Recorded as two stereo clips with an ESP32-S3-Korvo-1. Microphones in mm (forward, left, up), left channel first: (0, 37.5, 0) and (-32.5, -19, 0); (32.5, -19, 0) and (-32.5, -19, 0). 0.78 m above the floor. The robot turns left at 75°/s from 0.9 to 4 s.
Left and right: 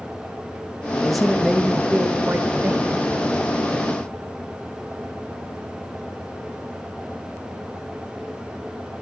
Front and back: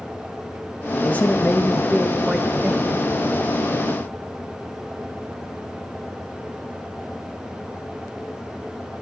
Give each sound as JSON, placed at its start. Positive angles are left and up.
{"t": 1.0, "sound": "a man speaking", "azimuth_deg": -20, "distance_m": 1.1}